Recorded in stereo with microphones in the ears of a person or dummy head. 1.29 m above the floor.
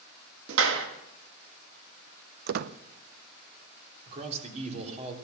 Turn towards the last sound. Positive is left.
turn(degrees=-40)  # may be behind; listen again after turning